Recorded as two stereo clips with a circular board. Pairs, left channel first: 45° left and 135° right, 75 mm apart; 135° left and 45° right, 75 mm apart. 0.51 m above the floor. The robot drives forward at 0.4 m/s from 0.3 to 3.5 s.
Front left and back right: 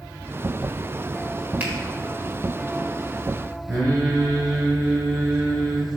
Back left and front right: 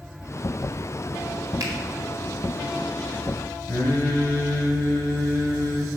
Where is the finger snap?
70° right, 1.5 m.